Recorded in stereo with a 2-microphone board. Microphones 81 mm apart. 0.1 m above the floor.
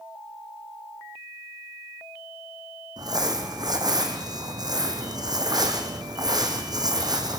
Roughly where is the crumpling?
Right.